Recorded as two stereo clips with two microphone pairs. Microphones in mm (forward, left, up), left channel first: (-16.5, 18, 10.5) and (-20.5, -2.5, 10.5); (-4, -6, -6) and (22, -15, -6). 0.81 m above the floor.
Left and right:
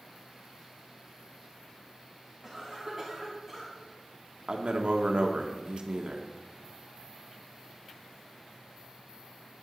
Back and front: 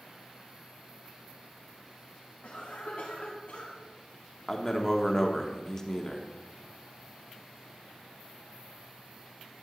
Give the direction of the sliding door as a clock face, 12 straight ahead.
I don't hear a sliding door.